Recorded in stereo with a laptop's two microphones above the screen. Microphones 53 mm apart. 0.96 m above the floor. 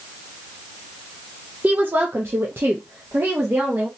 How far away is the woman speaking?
About 0.6 m.